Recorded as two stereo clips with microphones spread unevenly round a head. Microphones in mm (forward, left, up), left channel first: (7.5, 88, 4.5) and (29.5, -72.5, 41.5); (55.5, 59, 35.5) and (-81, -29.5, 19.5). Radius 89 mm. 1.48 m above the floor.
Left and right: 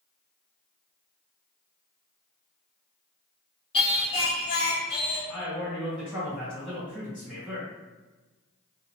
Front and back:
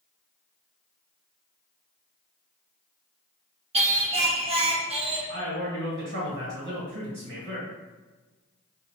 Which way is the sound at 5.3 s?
165° right.